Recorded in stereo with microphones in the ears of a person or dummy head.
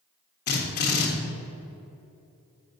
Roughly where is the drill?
Left.